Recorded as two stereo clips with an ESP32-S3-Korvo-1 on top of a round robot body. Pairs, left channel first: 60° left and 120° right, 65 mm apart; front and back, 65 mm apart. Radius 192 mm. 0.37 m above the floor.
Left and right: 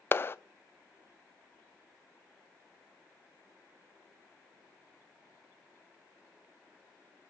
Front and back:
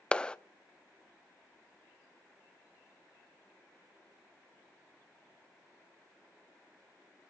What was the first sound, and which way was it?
A clap, 65° left.